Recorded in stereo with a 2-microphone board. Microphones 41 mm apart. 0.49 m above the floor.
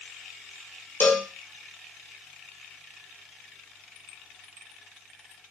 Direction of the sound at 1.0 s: 65° left (ahead or behind).